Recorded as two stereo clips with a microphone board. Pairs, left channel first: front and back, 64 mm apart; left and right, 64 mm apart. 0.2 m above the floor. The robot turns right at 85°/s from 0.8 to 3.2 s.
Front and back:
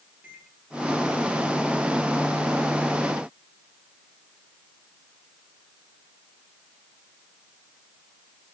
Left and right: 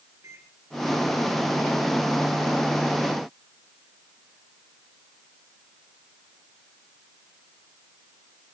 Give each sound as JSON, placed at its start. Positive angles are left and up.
{"t": 0.2, "sound": "a microwave", "azimuth_deg": -125, "distance_m": 5.5}